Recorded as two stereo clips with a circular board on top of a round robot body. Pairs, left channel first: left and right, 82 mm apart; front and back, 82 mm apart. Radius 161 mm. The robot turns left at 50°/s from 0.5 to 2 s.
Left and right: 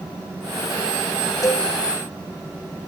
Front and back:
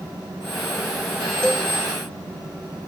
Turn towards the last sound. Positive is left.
turn(degrees=50)